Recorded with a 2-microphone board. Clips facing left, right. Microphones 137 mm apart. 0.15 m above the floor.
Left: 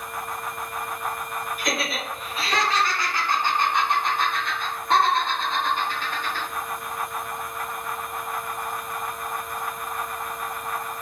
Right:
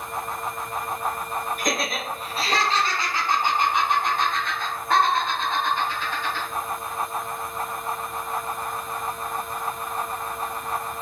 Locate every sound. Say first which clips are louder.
1.6 s laughter: right 1 dB; 50° right (ahead or behind), 1.8 m; by 6.5 s 50° left (ahead or behind), 1.8 m